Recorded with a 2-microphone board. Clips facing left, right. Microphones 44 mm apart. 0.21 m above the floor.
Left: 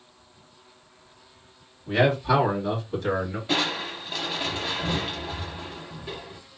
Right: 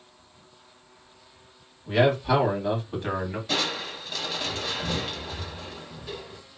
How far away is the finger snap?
No finger snap in this recording.